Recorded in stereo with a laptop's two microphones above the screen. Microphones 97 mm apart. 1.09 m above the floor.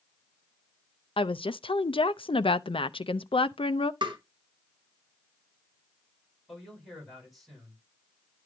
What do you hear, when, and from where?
1.2 s a woman speaking: 65° left (ahead or behind), 0.5 m
4.0 s tapping: 55° right (ahead or behind), 1.5 m
6.5 s a man speaking: centre (ahead or behind), 5.5 m